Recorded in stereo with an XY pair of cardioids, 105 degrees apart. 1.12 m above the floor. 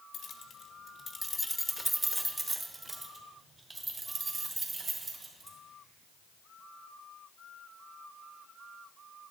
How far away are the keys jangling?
About 0.9 m.